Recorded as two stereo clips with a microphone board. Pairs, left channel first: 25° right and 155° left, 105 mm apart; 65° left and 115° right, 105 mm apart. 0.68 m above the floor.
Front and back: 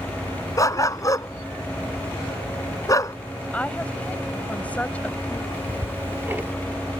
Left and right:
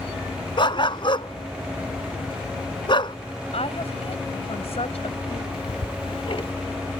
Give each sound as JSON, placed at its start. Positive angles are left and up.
{"t": 0.6, "sound": "a dog barking", "azimuth_deg": 30}
{"t": 3.5, "sound": "a woman speaking", "azimuth_deg": 55}
{"t": 5.5, "sound": "ticking", "azimuth_deg": 90}